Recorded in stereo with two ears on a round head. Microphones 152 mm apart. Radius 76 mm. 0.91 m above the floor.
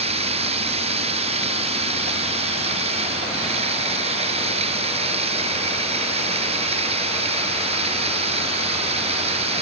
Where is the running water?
35° right (ahead or behind).